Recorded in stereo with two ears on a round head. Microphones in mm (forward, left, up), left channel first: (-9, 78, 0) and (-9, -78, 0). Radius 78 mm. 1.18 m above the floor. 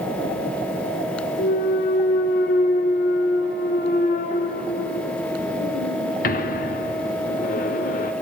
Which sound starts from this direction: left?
A clunk, at 1.4 s.